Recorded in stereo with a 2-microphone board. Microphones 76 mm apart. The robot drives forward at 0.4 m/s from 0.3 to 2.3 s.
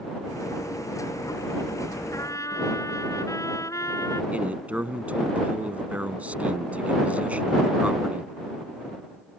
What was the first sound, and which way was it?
A trumpet, 45° left (ahead or behind).